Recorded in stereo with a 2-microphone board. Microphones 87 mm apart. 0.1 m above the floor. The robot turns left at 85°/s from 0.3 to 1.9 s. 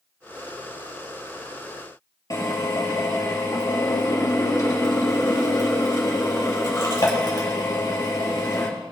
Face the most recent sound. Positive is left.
turn(degrees=45)  # may be behind; listen again after turning